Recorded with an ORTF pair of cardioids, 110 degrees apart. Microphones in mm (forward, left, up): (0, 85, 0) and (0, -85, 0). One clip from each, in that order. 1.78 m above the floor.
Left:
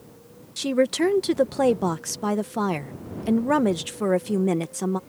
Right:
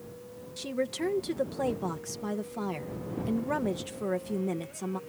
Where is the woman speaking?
50° left.